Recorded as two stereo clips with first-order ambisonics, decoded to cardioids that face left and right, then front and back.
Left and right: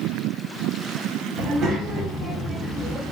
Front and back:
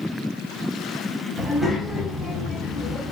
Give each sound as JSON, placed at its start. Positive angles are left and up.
{"t": 1.4, "sound": "a child speaking", "azimuth_deg": -105, "distance_m": 0.9}